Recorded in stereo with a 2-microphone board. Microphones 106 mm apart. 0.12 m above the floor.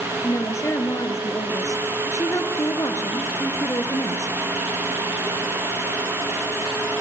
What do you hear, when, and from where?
0.2 s a woman speaking: 30° left (ahead or behind), 1.9 m